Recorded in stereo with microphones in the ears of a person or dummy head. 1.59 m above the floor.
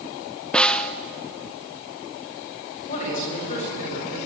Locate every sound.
0.5 s a snare drum: 5° left (ahead or behind), 0.6 m
2.9 s a man speaking: 40° left (ahead or behind), 8 m